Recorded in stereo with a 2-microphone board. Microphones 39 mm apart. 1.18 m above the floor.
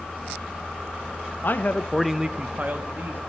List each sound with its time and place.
1.4 s a man speaking: 60° left (ahead or behind), 0.7 m; by 3.2 s 60° right (ahead or behind), 1.3 m